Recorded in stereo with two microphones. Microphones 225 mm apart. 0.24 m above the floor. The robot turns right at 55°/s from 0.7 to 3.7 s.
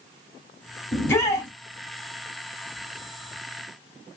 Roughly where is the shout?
Centre.